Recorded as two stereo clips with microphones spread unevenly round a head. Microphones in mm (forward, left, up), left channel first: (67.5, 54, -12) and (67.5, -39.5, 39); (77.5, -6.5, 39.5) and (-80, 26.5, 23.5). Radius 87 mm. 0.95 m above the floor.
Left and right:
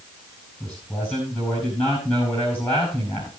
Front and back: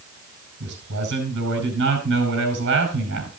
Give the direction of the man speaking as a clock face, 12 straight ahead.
6 o'clock.